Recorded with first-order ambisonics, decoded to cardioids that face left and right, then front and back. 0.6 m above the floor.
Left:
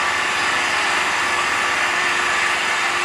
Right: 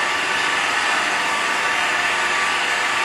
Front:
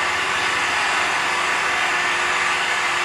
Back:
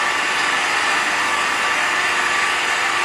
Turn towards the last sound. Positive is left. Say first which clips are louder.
# left 1 dB, back 2 dB
turn(degrees=150)